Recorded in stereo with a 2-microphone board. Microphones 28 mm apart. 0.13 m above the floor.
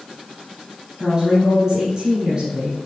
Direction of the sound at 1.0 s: 30° right (ahead or behind).